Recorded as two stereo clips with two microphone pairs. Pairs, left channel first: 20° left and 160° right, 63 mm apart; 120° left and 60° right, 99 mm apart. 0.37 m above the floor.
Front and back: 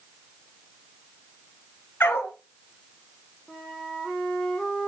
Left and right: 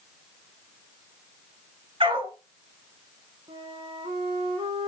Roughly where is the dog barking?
Ahead right.